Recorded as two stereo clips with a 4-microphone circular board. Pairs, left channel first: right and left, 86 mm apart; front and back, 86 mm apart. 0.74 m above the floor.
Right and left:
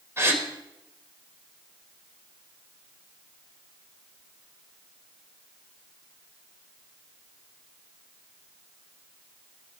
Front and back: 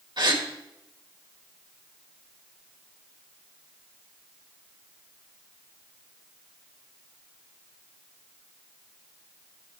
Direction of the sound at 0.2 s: 150° left.